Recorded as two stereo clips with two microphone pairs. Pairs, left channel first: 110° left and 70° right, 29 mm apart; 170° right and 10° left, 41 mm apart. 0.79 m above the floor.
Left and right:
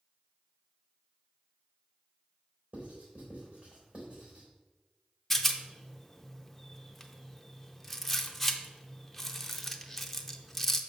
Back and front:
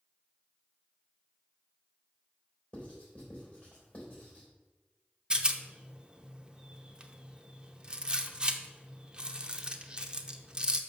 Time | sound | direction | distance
2.7 | writing | 110° right | 3 m
5.3 | a rattle | 40° left | 0.7 m